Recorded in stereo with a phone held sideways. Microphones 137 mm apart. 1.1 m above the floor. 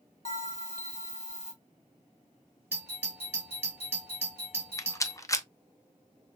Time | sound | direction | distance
0.2 | a bell | 50° left (ahead or behind) | 1.7 m
2.7 | a doorbell | 15° right (ahead or behind) | 3 m
4.8 | a rattle | 25° left (ahead or behind) | 0.6 m